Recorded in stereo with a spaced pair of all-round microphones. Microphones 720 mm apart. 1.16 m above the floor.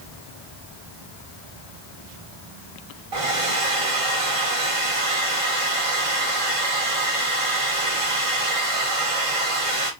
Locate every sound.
3.1 s a hair dryer: 45° right (ahead or behind), 1.2 m